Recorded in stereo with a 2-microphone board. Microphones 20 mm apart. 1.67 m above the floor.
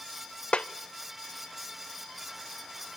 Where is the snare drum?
80° left, 0.5 m.